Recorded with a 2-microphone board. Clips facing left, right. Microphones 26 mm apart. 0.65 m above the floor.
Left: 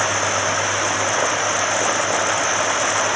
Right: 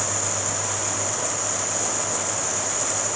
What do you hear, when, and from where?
0.0 s running water: 55° left (ahead or behind)